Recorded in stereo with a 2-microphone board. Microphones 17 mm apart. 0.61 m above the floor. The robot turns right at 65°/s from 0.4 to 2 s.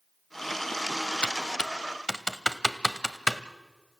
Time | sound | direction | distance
1.2 | typing on a keyboard | 75° left (ahead or behind) | 0.8 m